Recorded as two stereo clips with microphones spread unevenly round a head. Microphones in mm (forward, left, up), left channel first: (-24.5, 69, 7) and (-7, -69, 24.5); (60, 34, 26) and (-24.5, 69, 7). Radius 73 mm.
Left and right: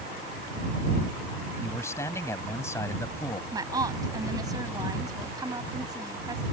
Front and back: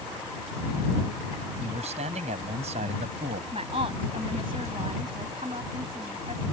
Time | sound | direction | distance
1.6 | a man speaking | 170° left | ?
3.5 | a woman speaking | 145° right | ?